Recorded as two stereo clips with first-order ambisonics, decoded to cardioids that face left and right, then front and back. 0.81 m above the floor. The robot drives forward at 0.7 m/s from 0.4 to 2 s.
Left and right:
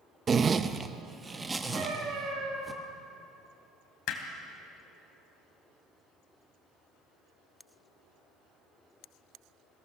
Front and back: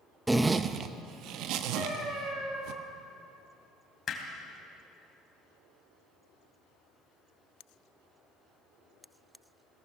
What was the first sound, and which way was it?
A zipper, 110° right.